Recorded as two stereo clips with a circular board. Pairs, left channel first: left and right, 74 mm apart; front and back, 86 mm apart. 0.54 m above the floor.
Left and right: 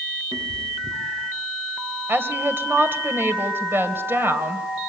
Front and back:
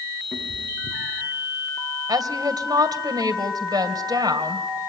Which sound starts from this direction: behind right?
A woman speaking, at 2.1 s.